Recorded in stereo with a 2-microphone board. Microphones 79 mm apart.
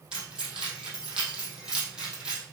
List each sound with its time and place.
0.1 s keys jangling: 10° right (ahead or behind), 3 m